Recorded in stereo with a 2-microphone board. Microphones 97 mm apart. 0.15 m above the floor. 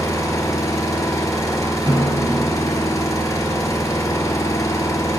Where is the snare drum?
60° right (ahead or behind), 1.6 m.